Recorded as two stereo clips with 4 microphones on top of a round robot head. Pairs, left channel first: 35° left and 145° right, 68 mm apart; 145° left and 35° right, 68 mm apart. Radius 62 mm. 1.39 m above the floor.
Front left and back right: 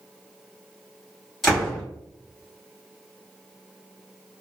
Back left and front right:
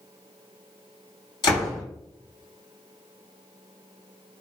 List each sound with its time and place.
1.4 s a door slam: 125° left, 1.7 m